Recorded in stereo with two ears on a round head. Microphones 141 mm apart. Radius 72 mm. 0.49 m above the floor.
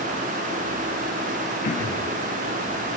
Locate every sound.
1.6 s throat clearing: 55° left (ahead or behind), 4.5 m